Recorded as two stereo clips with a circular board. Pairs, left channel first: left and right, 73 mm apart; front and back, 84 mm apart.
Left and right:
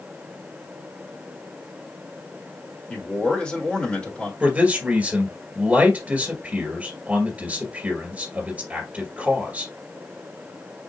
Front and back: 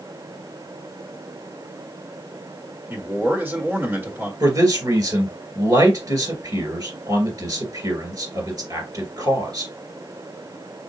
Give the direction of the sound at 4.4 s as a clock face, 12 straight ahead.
5 o'clock.